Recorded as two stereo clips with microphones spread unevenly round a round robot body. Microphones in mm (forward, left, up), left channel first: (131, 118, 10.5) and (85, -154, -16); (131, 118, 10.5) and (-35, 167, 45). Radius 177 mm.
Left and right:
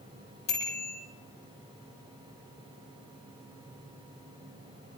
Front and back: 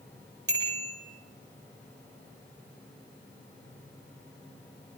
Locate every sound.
0.5 s a bicycle bell: 145° left, 8 m